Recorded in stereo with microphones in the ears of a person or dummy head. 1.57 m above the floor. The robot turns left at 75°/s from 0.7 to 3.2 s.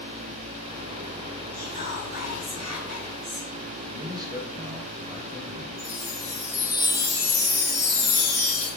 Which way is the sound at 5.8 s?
55° right (ahead or behind).